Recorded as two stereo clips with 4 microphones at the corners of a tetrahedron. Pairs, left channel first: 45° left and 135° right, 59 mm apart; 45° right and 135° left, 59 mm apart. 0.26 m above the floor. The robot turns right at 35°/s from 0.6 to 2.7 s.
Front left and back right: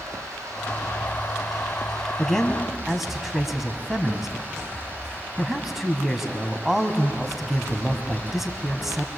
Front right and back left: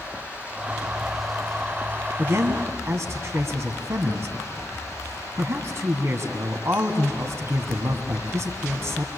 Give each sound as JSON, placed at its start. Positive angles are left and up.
{"t": 0.0, "sound": "running water", "azimuth_deg": -160, "distance_m": 9.0}
{"t": 2.2, "sound": "a man speaking", "azimuth_deg": 125, "distance_m": 2.5}